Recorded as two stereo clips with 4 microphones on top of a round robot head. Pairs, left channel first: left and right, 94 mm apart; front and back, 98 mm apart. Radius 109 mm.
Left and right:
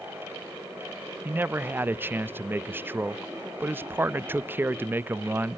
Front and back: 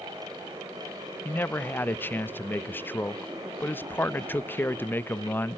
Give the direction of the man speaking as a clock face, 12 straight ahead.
2 o'clock.